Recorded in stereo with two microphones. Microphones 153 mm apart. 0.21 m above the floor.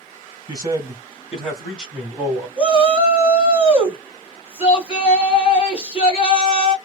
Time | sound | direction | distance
0.5 | a man speaking | 25° right (ahead or behind) | 1.5 m
2.6 | a shout | 35° left (ahead or behind) | 1.5 m